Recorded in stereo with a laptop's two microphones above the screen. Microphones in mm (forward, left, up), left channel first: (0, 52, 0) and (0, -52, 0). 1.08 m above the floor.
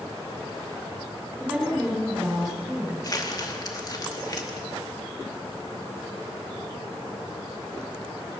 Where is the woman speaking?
5° right (ahead or behind), 5.5 m.